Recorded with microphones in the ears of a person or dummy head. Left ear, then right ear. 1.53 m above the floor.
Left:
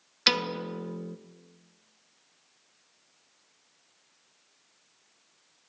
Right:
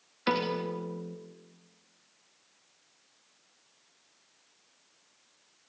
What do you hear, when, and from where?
0.3 s a piano: 75° left (ahead or behind), 1.6 m